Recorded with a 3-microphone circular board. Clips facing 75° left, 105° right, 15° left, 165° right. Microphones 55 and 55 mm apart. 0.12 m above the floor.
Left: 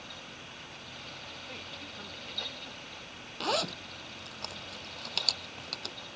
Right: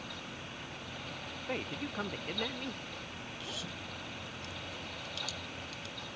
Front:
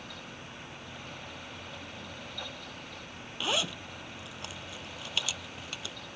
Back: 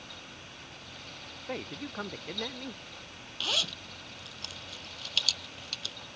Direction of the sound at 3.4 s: 85° left.